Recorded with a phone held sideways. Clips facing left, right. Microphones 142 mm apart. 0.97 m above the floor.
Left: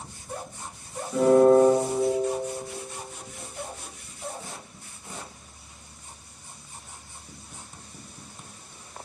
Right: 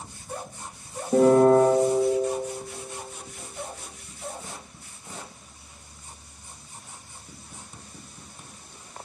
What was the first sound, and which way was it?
A piano, 50° right (ahead or behind).